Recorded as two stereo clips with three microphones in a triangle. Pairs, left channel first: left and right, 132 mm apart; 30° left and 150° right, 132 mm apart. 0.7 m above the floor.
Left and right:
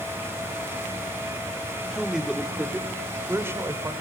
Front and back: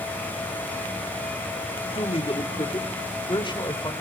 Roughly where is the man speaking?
Ahead.